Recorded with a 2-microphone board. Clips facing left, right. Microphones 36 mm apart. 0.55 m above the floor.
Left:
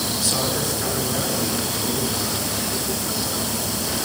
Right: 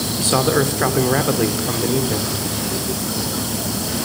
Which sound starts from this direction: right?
A man speaking, at 0.2 s.